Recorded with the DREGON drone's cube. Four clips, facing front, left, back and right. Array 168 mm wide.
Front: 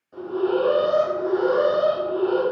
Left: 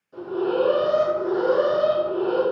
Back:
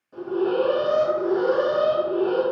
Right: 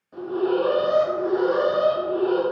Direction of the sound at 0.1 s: 80° right.